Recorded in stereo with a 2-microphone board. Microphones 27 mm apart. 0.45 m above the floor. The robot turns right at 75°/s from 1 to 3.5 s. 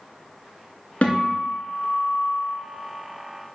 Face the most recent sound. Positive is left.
turn(degrees=-115)